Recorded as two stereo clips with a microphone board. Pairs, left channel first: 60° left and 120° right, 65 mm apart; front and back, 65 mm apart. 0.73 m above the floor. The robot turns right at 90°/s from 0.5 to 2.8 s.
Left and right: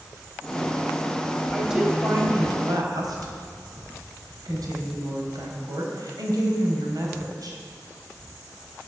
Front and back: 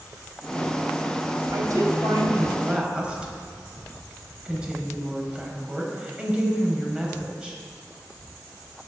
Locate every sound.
1.5 s a woman speaking: 140° left, 4 m; by 7.6 s 105° right, 4 m